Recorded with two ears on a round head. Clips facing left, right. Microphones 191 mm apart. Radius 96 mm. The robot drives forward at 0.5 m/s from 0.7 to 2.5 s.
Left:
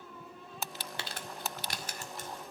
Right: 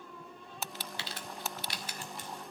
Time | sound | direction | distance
1.0 | crumpling | 45° left (ahead or behind) | 1.8 m